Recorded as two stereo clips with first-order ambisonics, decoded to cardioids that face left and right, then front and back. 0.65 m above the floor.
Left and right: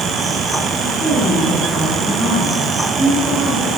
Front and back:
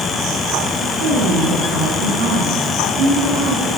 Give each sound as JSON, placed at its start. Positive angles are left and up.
{"t": 0.8, "sound": "a woman speaking", "azimuth_deg": 170, "distance_m": 10.0}